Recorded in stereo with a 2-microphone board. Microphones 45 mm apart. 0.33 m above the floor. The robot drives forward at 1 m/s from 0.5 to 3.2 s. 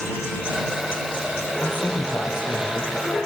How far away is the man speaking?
About 7.5 m.